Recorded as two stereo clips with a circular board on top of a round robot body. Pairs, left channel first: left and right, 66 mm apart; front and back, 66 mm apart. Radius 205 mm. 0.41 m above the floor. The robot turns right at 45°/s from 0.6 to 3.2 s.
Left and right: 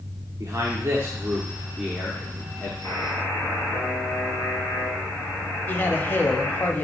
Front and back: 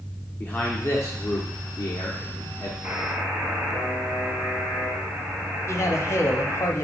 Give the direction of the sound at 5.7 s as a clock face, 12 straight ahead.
11 o'clock.